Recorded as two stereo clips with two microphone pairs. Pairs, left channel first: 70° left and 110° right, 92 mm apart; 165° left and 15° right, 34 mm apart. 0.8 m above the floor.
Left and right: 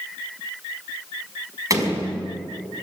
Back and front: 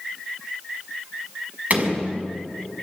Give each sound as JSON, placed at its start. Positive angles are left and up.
{"t": 1.7, "sound": "a door slam", "azimuth_deg": -55, "distance_m": 5.0}